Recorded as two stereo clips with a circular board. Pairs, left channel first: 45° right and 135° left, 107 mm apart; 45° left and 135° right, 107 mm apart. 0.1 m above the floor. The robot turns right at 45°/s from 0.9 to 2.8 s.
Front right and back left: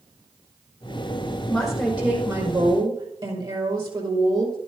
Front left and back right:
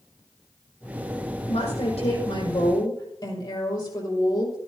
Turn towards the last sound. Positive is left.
turn(degrees=95)